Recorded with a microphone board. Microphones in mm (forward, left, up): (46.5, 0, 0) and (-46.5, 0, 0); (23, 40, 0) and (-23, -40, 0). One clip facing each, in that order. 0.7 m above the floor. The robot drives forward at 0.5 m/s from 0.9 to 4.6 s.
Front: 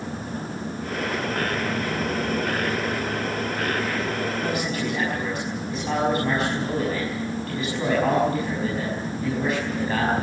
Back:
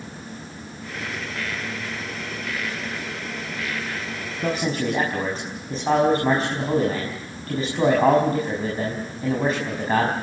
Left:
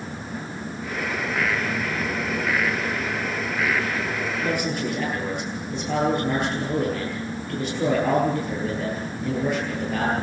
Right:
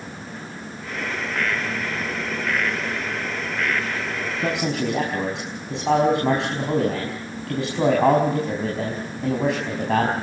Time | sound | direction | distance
4.4 | a man speaking | 125° right | 5 m